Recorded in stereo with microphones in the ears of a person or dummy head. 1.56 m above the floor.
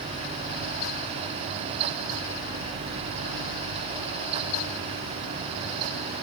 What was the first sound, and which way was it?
Only background noise.